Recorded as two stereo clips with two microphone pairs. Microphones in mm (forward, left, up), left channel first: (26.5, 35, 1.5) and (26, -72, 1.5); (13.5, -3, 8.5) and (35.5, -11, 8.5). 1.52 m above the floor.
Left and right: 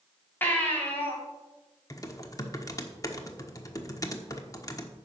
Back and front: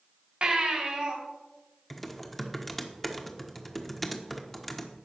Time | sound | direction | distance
0.4 | a baby crying | 15° left | 3 m
1.9 | typing on a keyboard | 75° left | 1.2 m